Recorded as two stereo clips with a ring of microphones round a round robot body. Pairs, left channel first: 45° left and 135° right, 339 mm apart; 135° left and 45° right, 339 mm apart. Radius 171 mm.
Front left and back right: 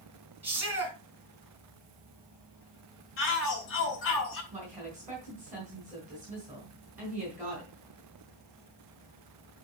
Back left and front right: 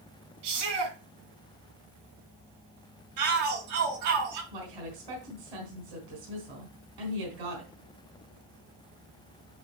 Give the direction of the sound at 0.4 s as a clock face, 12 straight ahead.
2 o'clock.